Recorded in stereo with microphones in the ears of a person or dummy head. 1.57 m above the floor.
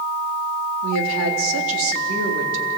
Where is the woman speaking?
85° right, 3.5 m.